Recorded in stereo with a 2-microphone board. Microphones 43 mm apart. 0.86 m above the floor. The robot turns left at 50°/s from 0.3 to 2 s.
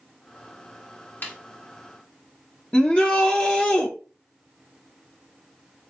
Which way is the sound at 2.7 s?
25° left (ahead or behind).